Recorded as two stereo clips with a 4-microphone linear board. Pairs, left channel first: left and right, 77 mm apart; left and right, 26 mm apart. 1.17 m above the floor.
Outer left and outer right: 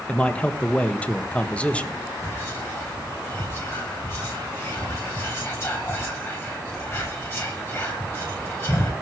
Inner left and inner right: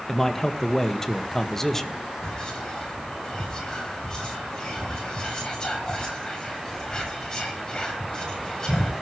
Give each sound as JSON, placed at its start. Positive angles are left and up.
{"t": 0.1, "sound": "a man speaking", "side_deg": 15, "distance_m": 1.6}
{"t": 2.2, "sound": "whispering", "side_deg": 30, "distance_m": 7.0}